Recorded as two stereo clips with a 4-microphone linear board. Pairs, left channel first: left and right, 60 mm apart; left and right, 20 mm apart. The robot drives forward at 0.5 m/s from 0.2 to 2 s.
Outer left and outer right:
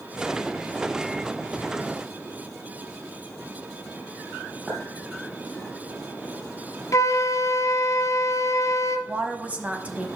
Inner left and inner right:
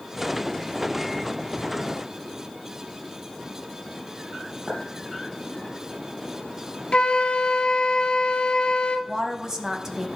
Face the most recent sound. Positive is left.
turn(degrees=-25)  # may be behind; listen again after turning